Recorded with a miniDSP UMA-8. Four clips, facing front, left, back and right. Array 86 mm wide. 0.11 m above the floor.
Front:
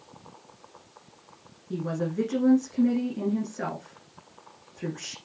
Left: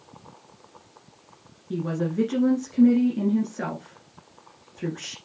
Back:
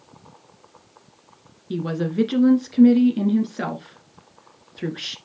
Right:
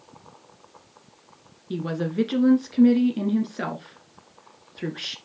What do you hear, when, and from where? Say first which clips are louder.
1.7 s a woman speaking: even, back 5 dB; 150° right, 1.3 m